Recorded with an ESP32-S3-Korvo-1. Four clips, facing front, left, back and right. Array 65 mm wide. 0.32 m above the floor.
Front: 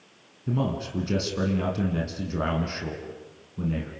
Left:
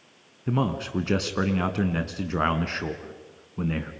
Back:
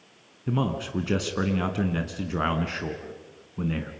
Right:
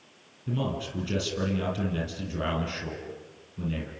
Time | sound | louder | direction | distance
0.5 | a man speaking | left 5 dB, back 1 dB | 110° left | 2.5 m